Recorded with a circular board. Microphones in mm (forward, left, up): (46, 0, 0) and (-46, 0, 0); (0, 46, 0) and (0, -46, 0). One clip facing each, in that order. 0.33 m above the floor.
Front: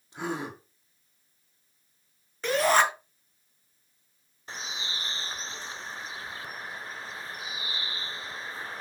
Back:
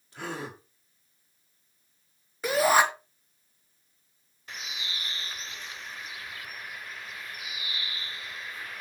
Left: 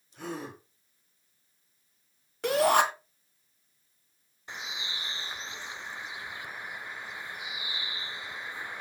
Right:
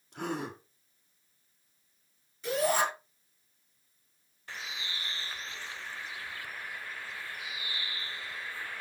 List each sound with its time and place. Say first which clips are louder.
0.1 s a gasp: front 3 dB, right 3 dB; 70° right, 2.5 m
2.4 s a shout: back 1 dB, left 5 dB; 100° left, 2.5 m
4.5 s a bird: front 2 dB, left 1 dB; 30° left, 0.5 m